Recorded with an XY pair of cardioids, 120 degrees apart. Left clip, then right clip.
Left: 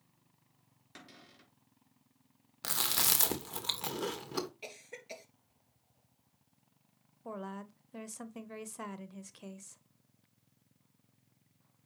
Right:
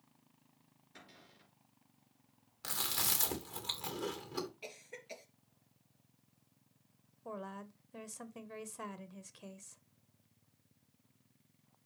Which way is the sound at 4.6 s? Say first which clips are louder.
Left 2 dB; 20° left.